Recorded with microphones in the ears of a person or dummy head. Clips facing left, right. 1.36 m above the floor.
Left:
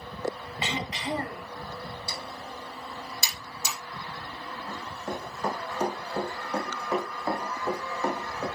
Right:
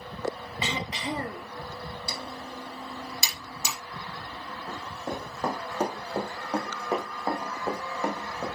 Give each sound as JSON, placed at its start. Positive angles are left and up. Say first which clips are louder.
{"t": 0.6, "sound": "throat clearing", "louder": "even", "side_deg": -75, "distance_m": 1.2}
{"t": 2.1, "sound": "typing on a keyboard", "louder": "right 1 dB", "side_deg": -65, "distance_m": 3.5}
{"t": 4.7, "sound": "running footsteps", "louder": "right 1 dB", "side_deg": -50, "distance_m": 3.5}